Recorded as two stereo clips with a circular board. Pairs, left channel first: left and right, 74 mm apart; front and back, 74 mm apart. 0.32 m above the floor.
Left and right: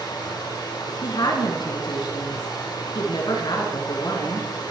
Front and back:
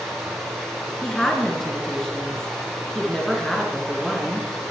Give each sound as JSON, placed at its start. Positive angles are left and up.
{"t": 0.0, "sound": "running water", "azimuth_deg": 85, "distance_m": 8.5}
{"t": 1.0, "sound": "a woman speaking", "azimuth_deg": 80, "distance_m": 4.5}